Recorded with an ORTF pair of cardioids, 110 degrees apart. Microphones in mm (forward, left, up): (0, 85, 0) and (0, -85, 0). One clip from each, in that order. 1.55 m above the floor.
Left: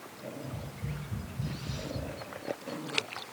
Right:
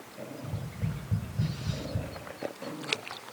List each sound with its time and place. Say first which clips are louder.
0.4 s tapping: right 1 dB; 60° right, 7 m